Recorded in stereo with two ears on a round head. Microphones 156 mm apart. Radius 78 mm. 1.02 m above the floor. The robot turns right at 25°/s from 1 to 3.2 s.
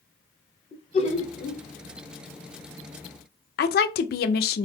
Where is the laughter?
35° left (ahead or behind), 1.1 m; by 1.6 s 45° left (ahead or behind), 1.1 m.